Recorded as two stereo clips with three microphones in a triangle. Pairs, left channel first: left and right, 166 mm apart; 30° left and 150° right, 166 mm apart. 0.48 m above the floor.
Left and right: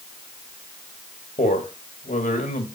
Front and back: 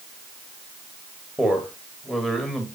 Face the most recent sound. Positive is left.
turn(degrees=120)